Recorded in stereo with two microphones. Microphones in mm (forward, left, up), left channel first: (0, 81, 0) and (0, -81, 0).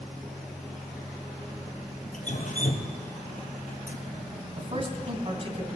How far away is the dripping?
About 1.7 m.